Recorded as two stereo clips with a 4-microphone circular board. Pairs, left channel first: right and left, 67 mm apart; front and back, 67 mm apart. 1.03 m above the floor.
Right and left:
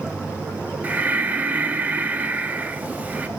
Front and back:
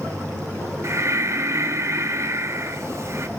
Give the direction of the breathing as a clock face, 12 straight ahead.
7 o'clock.